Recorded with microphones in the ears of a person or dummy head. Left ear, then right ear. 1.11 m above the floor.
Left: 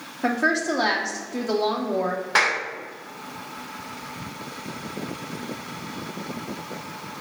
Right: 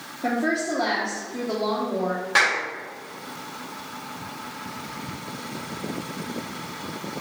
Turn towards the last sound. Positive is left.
turn(degrees=15)  # may be behind; listen again after turning